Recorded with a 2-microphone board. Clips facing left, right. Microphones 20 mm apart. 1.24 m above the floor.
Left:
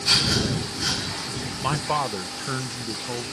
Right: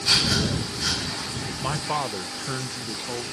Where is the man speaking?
15° left (ahead or behind).